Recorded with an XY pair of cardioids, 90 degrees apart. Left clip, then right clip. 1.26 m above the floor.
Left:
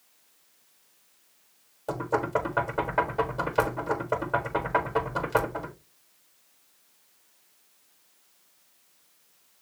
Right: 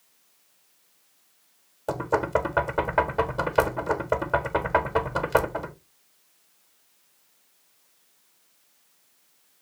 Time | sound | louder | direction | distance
1.9 | knocking | right 3 dB | 45° right | 1.1 m